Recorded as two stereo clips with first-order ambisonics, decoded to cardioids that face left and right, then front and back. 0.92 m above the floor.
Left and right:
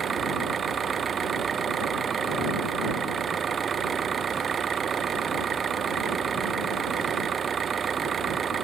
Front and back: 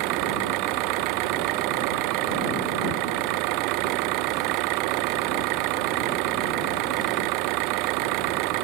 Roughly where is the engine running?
Behind.